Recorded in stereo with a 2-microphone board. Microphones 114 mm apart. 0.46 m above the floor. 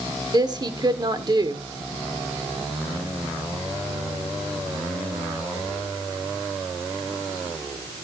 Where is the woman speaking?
35° right (ahead or behind), 1.2 m.